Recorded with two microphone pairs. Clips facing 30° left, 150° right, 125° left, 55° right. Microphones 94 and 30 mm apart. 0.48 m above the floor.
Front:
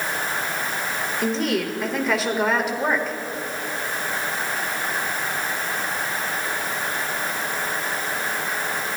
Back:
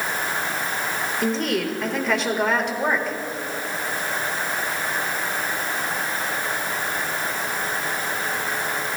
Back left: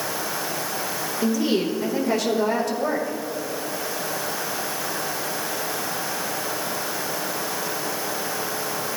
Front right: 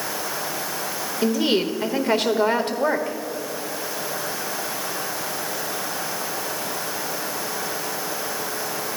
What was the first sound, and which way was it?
A woman speaking, 55° right.